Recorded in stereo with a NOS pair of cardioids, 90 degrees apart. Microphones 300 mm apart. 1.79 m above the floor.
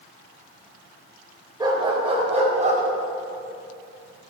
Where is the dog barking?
15° right, 3.5 m; by 2.8 s 25° right, 4.5 m.